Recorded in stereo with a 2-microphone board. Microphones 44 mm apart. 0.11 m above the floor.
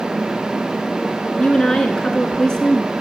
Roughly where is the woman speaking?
Centre.